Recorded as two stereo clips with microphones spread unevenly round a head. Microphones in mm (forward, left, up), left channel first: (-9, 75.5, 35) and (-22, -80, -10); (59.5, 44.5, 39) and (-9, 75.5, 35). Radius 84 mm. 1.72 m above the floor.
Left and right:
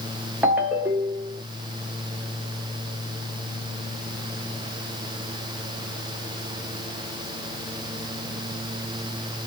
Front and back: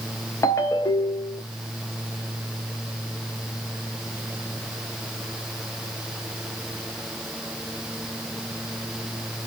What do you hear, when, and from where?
0.4 s a ringtone: straight ahead, 0.9 m